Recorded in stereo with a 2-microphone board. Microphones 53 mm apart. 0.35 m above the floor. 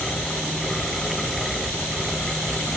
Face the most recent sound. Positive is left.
No sound to turn to.